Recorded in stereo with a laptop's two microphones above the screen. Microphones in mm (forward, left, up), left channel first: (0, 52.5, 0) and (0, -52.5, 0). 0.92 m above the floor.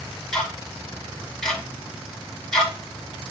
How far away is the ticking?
About 1.1 m.